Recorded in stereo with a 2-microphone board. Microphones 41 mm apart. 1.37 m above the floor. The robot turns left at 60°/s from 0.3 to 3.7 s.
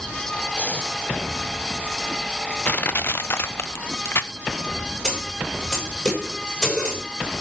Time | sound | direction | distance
0.6 | breathing | 35° left (ahead or behind) | 1.6 m
2.6 | crushing | 40° left (ahead or behind) | 0.7 m
5.0 | a snare drum | 15° left (ahead or behind) | 7 m